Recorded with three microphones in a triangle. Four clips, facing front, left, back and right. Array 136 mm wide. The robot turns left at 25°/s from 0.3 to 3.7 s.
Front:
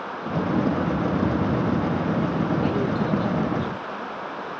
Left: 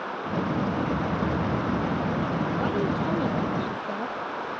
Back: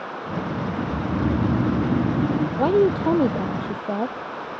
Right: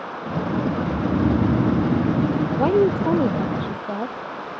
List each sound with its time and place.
0.8 s snoring: 100° right; by 2.5 s 140° right
2.6 s a woman speaking: 135° right; by 4.2 s 160° right